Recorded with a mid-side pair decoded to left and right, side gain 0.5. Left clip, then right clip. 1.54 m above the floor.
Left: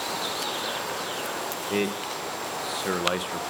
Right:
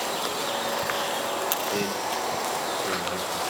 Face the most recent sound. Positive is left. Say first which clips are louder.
# right 1 dB
turn(degrees=50)